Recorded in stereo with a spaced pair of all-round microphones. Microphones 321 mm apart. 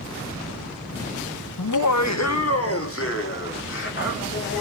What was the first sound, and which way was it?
Laughter, 75° left (ahead or behind).